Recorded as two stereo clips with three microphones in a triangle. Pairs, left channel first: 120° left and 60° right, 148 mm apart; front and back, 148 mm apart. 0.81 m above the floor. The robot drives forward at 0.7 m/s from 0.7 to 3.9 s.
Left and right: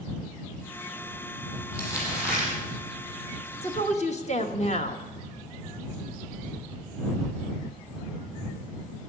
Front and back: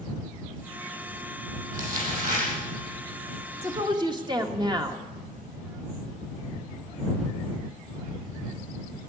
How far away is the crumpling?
About 6.5 m.